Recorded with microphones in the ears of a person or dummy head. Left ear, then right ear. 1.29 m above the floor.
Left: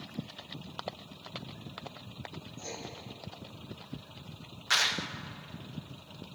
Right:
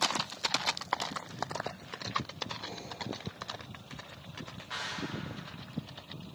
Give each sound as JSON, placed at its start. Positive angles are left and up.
{"t": 2.6, "sound": "writing", "side_deg": 70, "distance_m": 3.5}
{"t": 4.7, "sound": "a clap", "side_deg": 60, "distance_m": 0.8}